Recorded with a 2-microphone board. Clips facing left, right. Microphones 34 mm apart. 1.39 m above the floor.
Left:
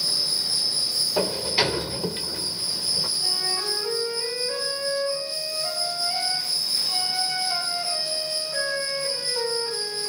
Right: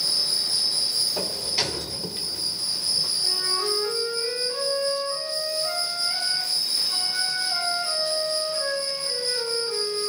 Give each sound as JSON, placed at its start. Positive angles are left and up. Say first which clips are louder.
{"t": 0.0, "sound": "an insect", "louder": "even", "side_deg": -50, "distance_m": 3.0}
{"t": 1.2, "sound": "a sliding door", "louder": "left 4 dB", "side_deg": 20, "distance_m": 0.5}
{"t": 3.2, "sound": "a flute", "louder": "right 1 dB", "side_deg": 20, "distance_m": 8.5}